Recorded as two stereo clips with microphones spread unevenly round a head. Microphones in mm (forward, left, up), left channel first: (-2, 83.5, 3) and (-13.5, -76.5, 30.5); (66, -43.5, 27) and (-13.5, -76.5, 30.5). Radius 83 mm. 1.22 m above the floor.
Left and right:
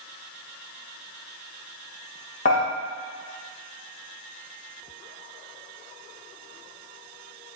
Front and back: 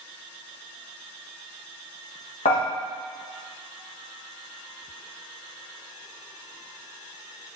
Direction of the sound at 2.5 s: 40° left.